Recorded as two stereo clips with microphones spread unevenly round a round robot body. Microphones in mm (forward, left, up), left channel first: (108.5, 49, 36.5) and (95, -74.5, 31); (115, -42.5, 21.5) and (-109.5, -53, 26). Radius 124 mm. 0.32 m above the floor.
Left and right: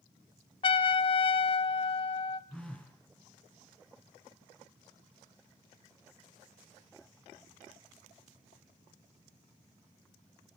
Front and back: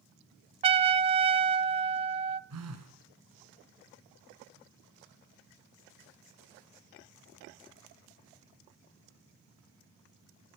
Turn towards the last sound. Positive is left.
turn(degrees=175)